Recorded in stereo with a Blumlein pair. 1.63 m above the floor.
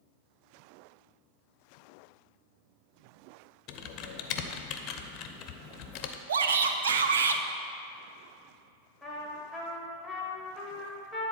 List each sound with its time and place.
3.7 s typing on a keyboard: 35° left, 0.7 m
6.3 s a shout: 65° right, 0.8 m
9.0 s a trumpet: straight ahead, 1.6 m